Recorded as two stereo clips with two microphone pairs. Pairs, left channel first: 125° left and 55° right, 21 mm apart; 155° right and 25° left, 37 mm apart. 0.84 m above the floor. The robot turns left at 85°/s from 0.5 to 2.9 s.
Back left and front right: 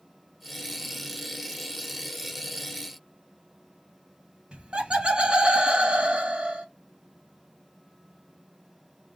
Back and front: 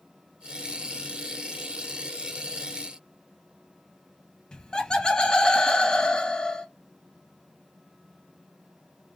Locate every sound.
4.5 s laughter: 90° right, 1.0 m